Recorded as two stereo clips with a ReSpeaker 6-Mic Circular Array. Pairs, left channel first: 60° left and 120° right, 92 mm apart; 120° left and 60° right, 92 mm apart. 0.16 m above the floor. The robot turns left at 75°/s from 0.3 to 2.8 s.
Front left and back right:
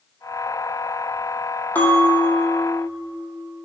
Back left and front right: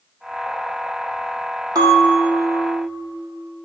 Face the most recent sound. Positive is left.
turn(degrees=-90)